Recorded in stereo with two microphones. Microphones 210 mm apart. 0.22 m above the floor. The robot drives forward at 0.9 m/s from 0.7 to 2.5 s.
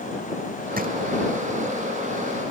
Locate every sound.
0.8 s a drawer: 45° right (ahead or behind)